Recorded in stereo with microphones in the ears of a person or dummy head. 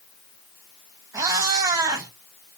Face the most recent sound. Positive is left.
turn(degrees=-15)  # may be behind; listen again after turning